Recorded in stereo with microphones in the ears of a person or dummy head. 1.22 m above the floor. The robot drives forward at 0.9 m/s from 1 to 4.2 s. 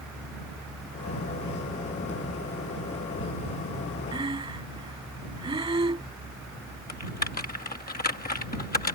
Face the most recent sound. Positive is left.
turn(degrees=35)  # may be behind; listen again after turning